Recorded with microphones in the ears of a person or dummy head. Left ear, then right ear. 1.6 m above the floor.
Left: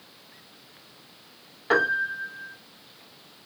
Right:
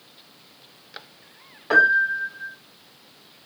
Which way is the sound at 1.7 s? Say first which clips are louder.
Right 6 dB; 10° left (ahead or behind).